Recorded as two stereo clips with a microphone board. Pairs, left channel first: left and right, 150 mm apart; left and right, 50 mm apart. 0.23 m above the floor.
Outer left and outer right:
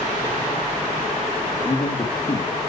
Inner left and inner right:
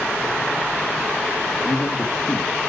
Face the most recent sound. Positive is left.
turn(degrees=30)  # may be behind; listen again after turning